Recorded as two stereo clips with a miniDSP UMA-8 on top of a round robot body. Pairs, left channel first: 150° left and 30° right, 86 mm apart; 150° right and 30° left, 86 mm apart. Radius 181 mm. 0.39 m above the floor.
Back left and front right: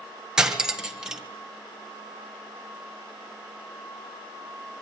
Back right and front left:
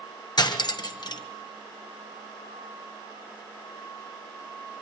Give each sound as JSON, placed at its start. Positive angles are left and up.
{"t": 0.4, "sound": "cutlery clinking", "azimuth_deg": -110, "distance_m": 1.9}